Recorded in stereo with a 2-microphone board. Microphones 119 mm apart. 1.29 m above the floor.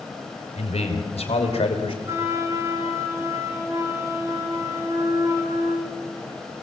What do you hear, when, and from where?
0.6 s a man speaking: 60° left (ahead or behind), 5.5 m; by 1.9 s 50° left (ahead or behind), 5.5 m
2.0 s a flute: 25° right (ahead or behind), 4.5 m